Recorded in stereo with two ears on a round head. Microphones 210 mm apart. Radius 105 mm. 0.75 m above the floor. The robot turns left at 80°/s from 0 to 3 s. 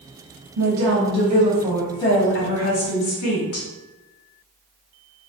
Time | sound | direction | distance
0.6 | a woman speaking | 85° right | 1.0 m